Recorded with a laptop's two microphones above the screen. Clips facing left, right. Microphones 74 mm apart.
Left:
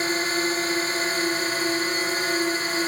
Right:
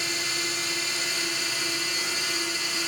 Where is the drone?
40° left (ahead or behind).